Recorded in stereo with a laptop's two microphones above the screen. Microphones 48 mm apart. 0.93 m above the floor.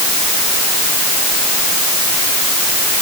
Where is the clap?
I don't hear a clap.